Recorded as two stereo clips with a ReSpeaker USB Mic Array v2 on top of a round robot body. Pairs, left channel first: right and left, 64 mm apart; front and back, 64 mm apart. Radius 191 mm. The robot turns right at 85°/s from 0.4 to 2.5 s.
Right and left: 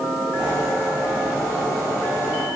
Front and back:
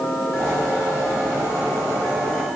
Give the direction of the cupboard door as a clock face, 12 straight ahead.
No cupboard door in this recording.